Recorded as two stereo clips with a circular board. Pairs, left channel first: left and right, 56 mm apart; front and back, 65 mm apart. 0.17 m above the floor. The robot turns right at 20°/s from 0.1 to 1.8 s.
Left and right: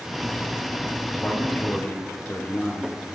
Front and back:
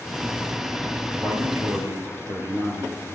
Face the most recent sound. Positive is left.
turn(degrees=150)